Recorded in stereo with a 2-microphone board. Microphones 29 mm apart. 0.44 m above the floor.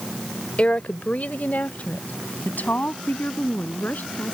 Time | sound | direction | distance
0.6 | a woman speaking | 45° left (ahead or behind) | ?